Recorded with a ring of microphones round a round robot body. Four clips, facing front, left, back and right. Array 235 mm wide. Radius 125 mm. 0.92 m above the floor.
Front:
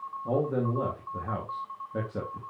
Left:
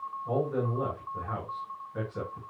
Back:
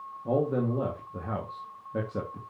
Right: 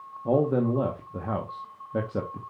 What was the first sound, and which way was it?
A man speaking, 95° right.